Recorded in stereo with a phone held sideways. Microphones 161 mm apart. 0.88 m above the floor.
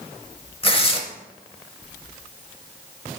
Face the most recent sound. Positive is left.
turn(degrees=35)  # may be behind; listen again after turning